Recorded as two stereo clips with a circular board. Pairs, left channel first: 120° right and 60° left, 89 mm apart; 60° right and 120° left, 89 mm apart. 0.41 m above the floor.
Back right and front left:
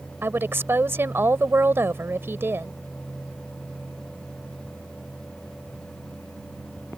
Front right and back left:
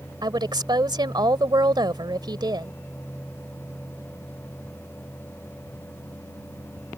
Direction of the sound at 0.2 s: 115° left.